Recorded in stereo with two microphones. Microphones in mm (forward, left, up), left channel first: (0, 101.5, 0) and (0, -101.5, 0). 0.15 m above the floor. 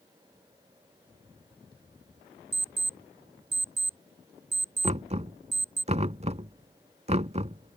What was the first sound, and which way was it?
An alarm clock, 50° right (ahead or behind).